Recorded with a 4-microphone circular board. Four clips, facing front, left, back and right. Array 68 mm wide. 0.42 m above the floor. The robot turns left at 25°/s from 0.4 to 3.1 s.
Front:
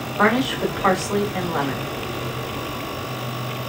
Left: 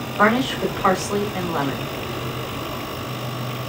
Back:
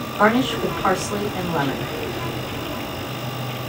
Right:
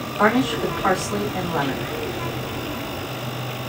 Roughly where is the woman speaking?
Ahead left.